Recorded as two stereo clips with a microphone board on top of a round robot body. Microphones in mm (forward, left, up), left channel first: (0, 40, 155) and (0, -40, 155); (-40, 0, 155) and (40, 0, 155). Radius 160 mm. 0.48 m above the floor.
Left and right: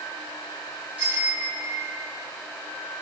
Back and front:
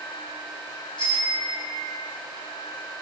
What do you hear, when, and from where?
1.0 s a bicycle bell: 160° right, 4.5 m; by 2.1 s 155° right, 3.5 m